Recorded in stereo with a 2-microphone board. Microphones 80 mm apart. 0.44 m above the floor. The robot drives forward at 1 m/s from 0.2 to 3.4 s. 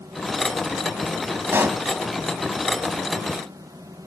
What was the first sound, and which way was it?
A pop, 30° right (ahead or behind).